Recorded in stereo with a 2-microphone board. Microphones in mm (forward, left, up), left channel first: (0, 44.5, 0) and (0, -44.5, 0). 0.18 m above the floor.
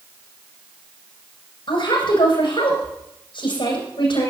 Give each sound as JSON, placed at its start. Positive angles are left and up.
{"t": 1.7, "sound": "a woman speaking", "side_deg": 70, "distance_m": 8.5}